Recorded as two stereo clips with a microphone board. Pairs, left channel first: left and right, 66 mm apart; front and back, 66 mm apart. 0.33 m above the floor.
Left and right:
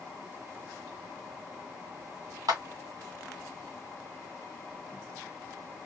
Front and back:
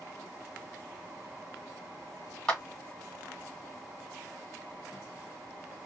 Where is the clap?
80° right, 1.8 m.